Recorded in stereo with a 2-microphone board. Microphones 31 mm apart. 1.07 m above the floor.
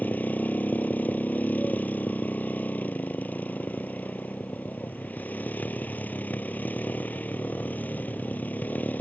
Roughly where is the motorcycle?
Left.